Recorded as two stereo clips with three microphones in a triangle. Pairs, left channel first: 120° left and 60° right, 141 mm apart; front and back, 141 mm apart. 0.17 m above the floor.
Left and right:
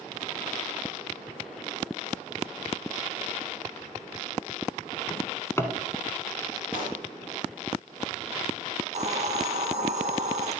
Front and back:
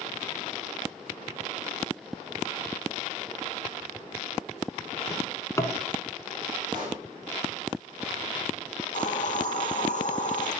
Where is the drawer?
55° left, 0.7 m.